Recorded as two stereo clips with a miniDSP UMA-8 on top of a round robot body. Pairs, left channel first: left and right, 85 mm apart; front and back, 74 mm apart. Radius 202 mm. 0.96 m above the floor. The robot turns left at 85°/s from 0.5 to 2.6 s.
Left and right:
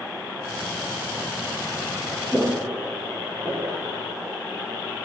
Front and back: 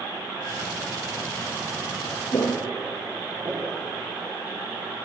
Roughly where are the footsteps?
Ahead.